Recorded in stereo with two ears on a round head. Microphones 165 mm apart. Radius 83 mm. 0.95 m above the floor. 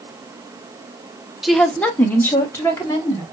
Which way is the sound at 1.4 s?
Centre (ahead or behind).